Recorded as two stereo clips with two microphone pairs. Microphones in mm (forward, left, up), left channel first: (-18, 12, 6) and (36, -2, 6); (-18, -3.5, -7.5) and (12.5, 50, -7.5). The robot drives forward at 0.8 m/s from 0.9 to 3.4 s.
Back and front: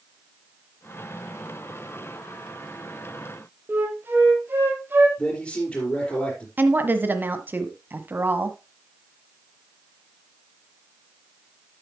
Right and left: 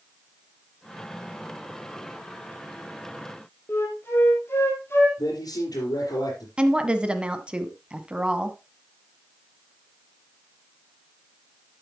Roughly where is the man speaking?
Behind right.